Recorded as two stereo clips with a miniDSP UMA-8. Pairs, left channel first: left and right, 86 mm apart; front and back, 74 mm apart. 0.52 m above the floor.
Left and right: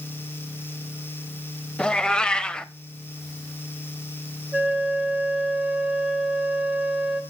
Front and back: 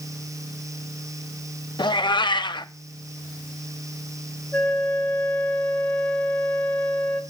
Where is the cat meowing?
10° left, 0.5 m.